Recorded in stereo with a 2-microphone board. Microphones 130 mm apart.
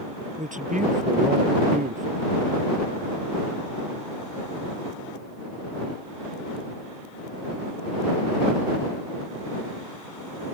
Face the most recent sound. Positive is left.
turn(degrees=-80)